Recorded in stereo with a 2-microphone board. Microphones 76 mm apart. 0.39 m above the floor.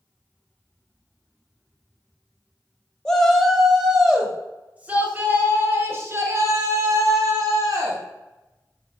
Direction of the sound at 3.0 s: 10° left (ahead or behind).